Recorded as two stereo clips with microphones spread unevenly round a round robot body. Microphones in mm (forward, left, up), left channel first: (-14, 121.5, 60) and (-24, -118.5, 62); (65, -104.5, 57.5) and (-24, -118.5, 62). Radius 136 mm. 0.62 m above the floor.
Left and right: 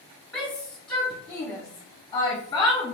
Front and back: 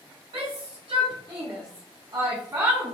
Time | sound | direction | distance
0.3 | a shout | 170° left | 1.8 m